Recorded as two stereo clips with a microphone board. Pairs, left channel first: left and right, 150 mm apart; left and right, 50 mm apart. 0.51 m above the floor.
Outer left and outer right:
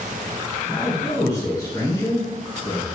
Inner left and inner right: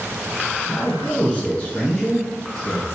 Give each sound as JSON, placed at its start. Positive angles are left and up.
{"t": 0.7, "sound": "a man speaking", "side_deg": 35, "distance_m": 1.3}